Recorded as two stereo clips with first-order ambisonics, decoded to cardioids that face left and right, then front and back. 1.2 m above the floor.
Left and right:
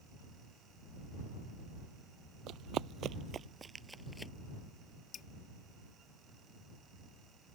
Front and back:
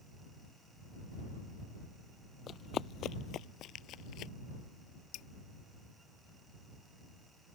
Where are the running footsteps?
55° right; by 4.3 s 10° left.